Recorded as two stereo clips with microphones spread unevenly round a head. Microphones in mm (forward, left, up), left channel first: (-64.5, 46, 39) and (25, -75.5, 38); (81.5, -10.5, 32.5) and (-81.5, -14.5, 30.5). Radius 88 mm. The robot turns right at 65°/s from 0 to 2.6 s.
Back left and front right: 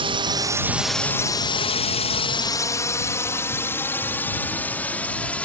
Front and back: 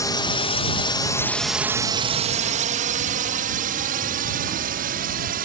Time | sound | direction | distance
0.0 | a drone | 55° right | ?